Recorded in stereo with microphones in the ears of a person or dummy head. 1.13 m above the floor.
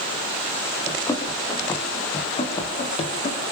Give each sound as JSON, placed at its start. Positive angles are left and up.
{"t": 0.9, "sound": "running footsteps", "side_deg": 20, "distance_m": 5.0}